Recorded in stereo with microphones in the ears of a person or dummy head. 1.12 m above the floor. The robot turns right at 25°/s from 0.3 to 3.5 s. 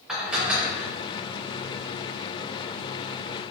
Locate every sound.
0.1 s dishes clattering: centre (ahead or behind), 0.6 m; by 0.9 s 15° right (ahead or behind), 0.6 m